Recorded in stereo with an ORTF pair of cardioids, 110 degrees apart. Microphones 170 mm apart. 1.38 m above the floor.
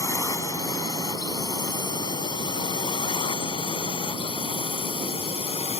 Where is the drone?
20° left; by 5.8 s 35° left.